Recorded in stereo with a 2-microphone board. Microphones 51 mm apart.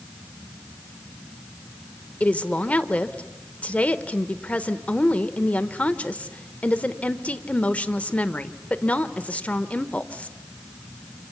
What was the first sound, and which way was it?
A woman speaking, 25° left (ahead or behind).